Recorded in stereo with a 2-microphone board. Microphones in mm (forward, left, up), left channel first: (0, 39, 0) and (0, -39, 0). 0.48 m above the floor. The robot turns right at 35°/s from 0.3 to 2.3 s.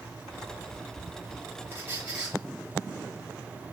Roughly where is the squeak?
Right.